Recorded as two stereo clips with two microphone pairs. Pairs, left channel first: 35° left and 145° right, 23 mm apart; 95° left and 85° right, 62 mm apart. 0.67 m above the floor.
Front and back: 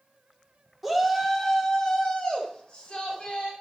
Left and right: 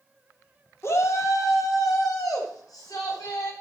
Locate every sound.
0.8 s a shout: 125° left, 2 m; by 3.5 s 80° left, 5.5 m